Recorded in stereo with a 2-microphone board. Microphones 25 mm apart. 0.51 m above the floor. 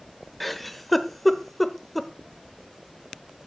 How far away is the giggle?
About 0.8 m.